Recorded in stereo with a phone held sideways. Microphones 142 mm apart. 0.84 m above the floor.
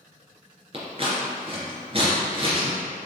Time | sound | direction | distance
0.7 | scissors | 40° right (ahead or behind) | 2.5 m